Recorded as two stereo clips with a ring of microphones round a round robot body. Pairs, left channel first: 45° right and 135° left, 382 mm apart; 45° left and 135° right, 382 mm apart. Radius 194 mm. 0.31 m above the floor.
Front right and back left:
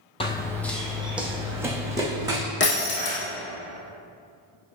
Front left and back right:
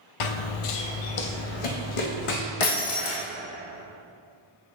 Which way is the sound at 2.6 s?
20° left.